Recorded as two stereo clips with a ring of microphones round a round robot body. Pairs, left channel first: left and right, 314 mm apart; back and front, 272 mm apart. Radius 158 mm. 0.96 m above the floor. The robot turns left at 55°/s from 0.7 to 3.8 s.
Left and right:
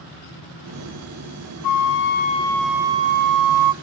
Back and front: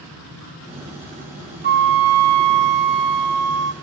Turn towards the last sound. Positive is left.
turn(degrees=-65)